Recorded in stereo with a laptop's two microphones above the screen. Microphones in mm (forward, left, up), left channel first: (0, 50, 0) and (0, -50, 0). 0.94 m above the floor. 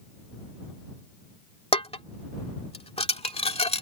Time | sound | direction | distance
1.7 | dishes clattering | 80° left | ?